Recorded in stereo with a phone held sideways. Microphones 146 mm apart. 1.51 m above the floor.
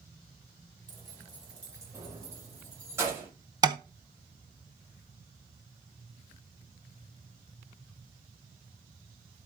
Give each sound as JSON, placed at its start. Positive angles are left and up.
{"t": 0.9, "sound": "keys jangling", "side_deg": -25, "distance_m": 4.5}
{"t": 3.6, "sound": "tapping", "side_deg": -25, "distance_m": 0.7}